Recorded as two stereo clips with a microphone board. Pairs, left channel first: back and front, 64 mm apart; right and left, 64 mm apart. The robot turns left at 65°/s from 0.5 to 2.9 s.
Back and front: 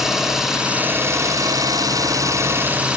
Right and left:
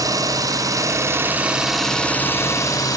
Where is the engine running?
85° left, 3.5 m; by 3.0 s 70° right, 3.5 m.